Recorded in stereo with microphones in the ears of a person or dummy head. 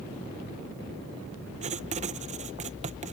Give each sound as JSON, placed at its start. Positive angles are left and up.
{"t": 1.6, "sound": "writing", "side_deg": -35}